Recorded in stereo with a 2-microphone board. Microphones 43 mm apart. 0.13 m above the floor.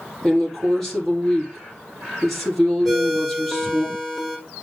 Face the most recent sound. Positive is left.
turn(degrees=5)  # may be behind; listen again after turning